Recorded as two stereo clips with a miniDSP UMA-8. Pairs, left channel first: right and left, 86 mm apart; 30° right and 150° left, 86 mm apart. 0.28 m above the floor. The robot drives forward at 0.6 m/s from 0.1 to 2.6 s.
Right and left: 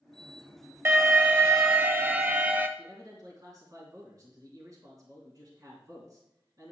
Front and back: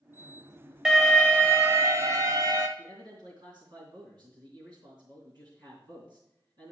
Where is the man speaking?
135° left, 3.5 m.